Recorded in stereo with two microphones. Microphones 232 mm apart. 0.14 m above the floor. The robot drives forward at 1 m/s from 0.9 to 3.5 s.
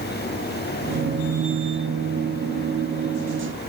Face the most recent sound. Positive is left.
No sound to turn to.